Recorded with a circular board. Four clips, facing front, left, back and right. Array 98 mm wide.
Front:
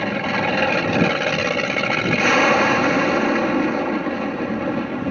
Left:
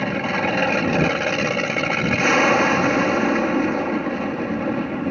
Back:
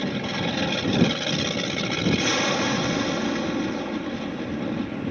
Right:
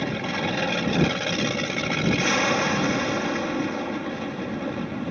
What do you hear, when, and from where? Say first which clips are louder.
0.0 s an aircraft: left 5 dB, front 6 dB; 35° left